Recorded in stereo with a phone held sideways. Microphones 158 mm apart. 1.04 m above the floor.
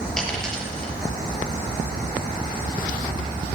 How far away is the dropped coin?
About 5.5 m.